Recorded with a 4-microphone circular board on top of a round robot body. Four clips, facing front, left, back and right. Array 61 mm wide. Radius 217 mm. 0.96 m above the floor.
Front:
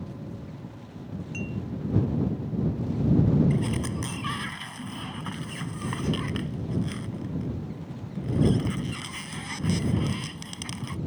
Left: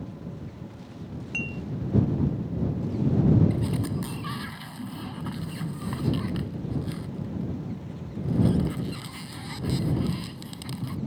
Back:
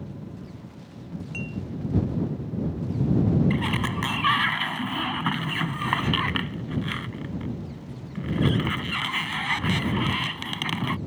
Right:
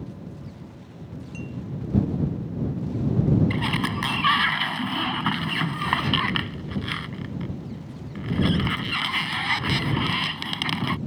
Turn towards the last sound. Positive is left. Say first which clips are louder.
# right 4 dB, back 3 dB
turn(degrees=-125)